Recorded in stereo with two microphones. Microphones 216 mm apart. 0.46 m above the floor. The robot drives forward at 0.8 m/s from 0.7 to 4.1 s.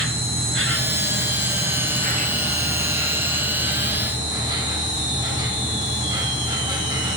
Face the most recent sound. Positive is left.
turn(degrees=-20)  # may be behind; listen again after turning